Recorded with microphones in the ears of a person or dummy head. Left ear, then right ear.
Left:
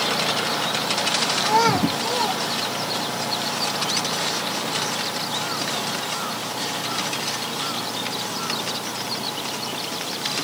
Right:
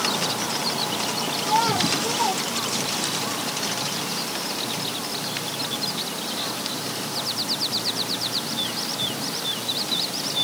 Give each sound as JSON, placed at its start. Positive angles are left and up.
{"t": 1.4, "sound": "a child speaking", "side_deg": 80, "distance_m": 0.7}